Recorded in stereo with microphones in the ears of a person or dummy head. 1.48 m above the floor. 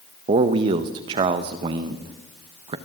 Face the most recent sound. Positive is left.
turn(degrees=-30)  # may be behind; listen again after turning